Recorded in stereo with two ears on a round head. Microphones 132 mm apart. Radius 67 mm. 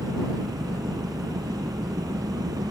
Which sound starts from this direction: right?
An engine running, at 0.0 s.